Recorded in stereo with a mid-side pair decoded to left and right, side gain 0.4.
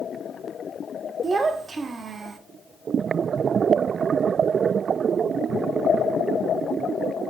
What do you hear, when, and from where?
1.2 s a child speaking: 45° right, 1.2 m